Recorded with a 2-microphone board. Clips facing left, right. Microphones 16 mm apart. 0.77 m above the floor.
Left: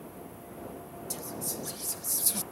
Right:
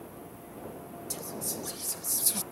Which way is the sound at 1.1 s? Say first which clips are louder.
Even; centre (ahead or behind).